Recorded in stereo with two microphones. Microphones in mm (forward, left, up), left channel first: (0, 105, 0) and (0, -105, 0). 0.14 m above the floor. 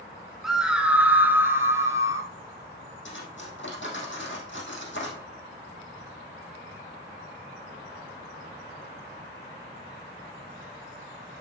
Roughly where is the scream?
Centre.